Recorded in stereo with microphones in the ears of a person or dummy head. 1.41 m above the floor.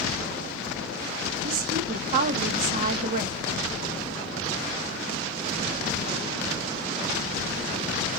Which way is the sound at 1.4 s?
50° right (ahead or behind).